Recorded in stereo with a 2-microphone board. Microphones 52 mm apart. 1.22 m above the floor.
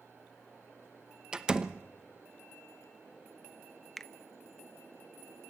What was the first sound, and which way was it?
A door slam, 15° right (ahead or behind).